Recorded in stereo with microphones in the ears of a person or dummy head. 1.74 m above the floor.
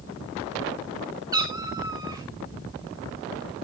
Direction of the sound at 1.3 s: 20° right (ahead or behind).